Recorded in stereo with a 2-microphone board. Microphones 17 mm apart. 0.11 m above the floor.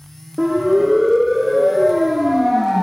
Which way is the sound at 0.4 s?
5° right (ahead or behind).